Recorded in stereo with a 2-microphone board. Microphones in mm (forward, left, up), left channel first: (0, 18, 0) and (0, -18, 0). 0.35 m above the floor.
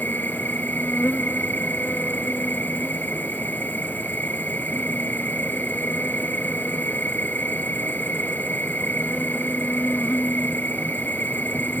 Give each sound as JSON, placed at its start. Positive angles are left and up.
{"t": 0.0, "sound": "an insect", "side_deg": 65}